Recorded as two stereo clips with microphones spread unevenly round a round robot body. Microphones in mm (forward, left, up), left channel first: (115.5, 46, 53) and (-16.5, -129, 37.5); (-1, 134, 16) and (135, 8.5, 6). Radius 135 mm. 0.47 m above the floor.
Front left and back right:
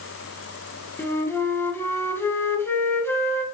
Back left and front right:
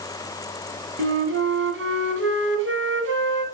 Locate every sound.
1.0 s a flute: 25° right, 1.9 m